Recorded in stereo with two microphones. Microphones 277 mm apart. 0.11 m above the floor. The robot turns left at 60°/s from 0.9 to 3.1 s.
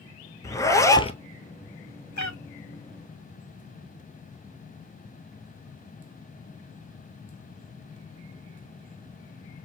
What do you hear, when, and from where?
0.4 s a zipper: 10° left (ahead or behind), 0.7 m; by 1.2 s 25° left (ahead or behind), 0.7 m
2.2 s a cat meowing: 85° left, 0.7 m; by 2.4 s 75° left (ahead or behind), 0.7 m